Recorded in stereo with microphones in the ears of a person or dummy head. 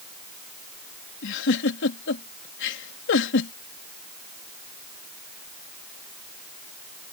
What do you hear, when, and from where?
1.2 s a giggle: 75° left (ahead or behind)